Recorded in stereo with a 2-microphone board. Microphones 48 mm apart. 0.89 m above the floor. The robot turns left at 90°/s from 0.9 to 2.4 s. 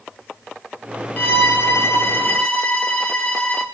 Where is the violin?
140° left, 2.5 m; by 3.6 s 30° left, 2.5 m.